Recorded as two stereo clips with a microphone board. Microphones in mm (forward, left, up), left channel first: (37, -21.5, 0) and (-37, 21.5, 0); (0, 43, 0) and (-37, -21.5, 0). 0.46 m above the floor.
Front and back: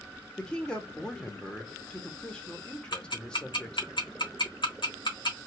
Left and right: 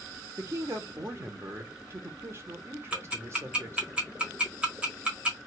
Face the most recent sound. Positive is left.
turn(degrees=-45)